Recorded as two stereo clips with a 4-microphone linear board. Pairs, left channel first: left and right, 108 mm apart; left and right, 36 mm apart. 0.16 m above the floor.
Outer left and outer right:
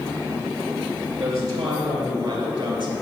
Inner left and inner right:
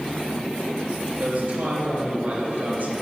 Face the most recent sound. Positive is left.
turn(degrees=-45)  # may be behind; listen again after turning